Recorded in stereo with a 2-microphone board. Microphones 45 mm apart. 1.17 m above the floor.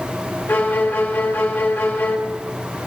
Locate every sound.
0.5 s a violin: 55° left (ahead or behind), 2 m